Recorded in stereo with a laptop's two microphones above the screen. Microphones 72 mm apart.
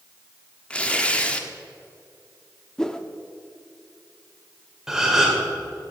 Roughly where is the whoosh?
Centre.